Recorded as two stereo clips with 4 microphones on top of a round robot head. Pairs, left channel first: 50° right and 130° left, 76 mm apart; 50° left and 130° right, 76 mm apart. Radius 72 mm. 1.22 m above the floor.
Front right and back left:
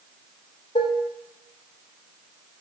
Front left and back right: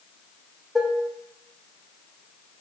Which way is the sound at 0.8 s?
45° right.